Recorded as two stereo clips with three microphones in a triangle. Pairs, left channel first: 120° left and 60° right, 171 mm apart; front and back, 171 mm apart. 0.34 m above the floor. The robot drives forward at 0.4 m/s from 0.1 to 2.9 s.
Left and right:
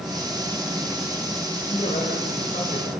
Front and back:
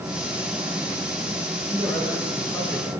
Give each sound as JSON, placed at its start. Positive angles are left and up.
{"t": 1.7, "sound": "a man speaking", "azimuth_deg": 75, "distance_m": 8.0}